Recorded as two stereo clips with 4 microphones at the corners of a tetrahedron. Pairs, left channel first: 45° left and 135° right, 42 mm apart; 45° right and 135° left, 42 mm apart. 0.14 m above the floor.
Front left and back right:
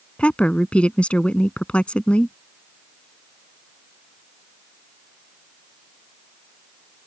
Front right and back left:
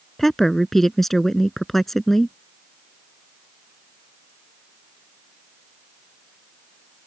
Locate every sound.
0.2 s a woman speaking: 35° left